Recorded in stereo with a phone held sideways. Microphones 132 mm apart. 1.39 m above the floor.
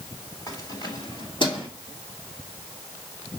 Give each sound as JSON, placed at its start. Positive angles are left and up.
{"t": 0.5, "sound": "keys jangling", "side_deg": 30, "distance_m": 2.5}